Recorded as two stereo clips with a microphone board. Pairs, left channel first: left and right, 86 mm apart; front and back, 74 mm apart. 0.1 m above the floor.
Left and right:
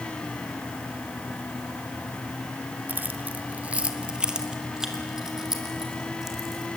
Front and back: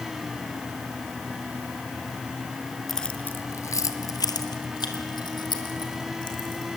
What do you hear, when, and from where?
2.9 s keys jangling: 85° right, 1.0 m; by 6.7 s 5° right, 4.5 m